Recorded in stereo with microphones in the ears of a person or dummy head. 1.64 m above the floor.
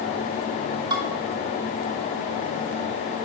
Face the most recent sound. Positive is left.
turn(degrees=-25)  # may be behind; listen again after turning